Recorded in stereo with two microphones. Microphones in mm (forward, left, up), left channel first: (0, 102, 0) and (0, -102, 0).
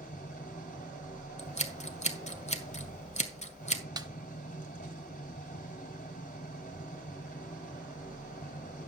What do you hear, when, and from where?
0.0 s an engine running: 40° left (ahead or behind), 3 m
1.4 s scissors: 30° left (ahead or behind), 1.5 m
4.0 s a snare drum: 20° right (ahead or behind), 1.3 m